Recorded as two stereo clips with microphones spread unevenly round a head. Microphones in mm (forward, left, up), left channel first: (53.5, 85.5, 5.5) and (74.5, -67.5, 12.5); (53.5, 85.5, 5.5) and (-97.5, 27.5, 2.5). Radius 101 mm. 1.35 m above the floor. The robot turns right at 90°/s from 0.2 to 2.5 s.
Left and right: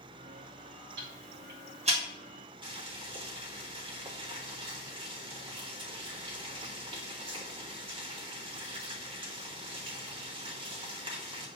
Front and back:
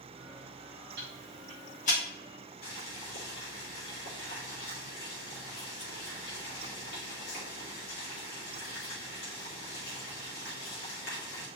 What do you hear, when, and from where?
1.0 s ticking: 115° right, 3 m; by 2.0 s 25° right, 3 m
2.6 s boiling: 25° right, 3.5 m